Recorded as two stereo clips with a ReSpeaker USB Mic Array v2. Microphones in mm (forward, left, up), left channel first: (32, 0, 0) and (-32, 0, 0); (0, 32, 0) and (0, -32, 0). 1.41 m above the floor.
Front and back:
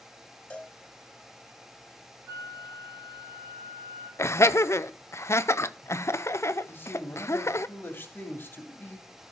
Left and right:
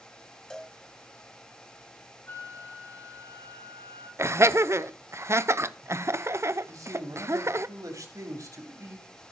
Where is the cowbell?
20° left, 1.3 m.